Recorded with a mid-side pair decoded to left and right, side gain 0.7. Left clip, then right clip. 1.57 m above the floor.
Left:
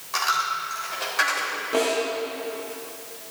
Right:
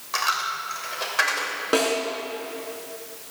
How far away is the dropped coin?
About 3 m.